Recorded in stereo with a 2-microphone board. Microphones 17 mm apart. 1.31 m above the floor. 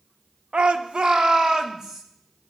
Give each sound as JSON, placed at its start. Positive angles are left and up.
{"t": 0.5, "sound": "a shout", "side_deg": -70, "distance_m": 0.6}